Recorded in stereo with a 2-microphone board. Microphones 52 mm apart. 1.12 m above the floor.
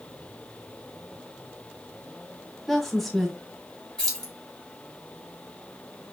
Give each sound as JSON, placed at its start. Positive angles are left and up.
{"t": 2.7, "sound": "a woman speaking", "side_deg": 0, "distance_m": 1.6}
{"t": 4.0, "sound": "keys jangling", "side_deg": 15, "distance_m": 2.0}